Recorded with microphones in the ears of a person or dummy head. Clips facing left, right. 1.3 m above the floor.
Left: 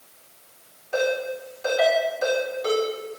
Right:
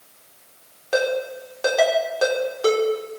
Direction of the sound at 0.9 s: 80° right.